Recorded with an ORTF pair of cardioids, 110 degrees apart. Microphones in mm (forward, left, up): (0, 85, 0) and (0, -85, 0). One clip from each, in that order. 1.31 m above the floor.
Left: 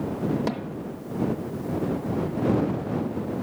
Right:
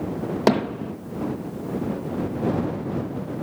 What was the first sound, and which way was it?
Hammering, 55° right.